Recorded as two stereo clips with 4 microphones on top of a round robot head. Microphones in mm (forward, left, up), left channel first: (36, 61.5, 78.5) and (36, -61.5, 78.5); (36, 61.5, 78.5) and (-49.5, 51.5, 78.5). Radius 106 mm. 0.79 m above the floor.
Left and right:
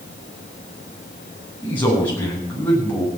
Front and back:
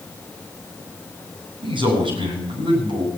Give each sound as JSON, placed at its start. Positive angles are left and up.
{"t": 1.6, "sound": "a man speaking", "azimuth_deg": 170, "distance_m": 7.5}